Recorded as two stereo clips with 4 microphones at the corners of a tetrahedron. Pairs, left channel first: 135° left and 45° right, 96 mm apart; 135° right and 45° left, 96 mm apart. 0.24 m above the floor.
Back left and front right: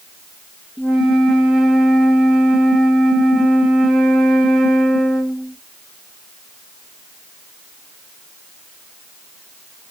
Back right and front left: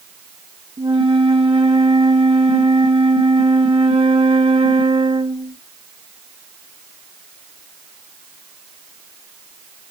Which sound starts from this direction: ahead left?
A flute, at 0.8 s.